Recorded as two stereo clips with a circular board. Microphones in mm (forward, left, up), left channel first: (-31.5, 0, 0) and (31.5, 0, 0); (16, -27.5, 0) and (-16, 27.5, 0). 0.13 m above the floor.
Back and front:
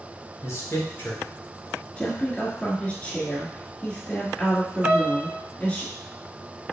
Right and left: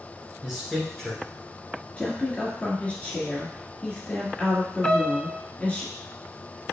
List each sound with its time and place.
0.4 s a man speaking: 155° right, 1.7 m; by 1.9 s 115° right, 1.8 m
2.0 s a woman speaking: 120° right, 2.0 m
4.8 s a piano: 20° right, 0.5 m